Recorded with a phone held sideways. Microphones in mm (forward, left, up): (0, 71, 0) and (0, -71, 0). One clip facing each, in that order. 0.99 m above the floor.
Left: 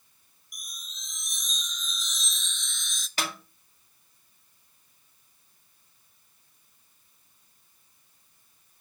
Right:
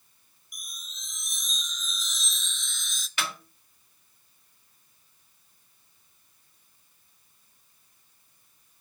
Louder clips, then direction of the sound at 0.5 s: Even; centre (ahead or behind).